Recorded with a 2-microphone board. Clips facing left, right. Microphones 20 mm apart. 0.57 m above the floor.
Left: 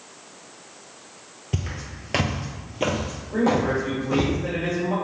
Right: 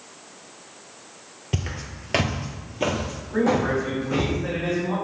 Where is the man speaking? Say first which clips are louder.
Even; 20° left (ahead or behind), 2.0 m.